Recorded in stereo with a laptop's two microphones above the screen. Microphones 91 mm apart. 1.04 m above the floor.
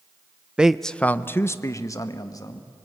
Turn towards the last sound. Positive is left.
turn(degrees=40)  # may be behind; listen again after turning